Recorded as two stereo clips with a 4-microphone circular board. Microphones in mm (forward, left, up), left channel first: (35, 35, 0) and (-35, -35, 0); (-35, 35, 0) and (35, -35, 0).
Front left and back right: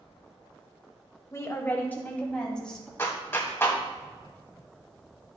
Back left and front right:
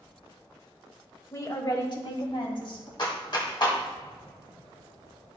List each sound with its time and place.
1.3 s a woman speaking: 90° left, 1.4 m; by 2.9 s 130° left, 2.5 m
3.0 s a clap: 105° left, 1.8 m